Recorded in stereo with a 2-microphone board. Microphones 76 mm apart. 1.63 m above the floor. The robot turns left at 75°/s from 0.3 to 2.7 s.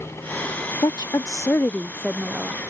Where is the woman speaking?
95° left; by 2.5 s 30° right.